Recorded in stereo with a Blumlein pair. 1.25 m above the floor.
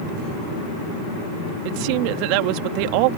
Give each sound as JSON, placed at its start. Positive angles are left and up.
{"t": 1.6, "sound": "a woman speaking", "azimuth_deg": -45}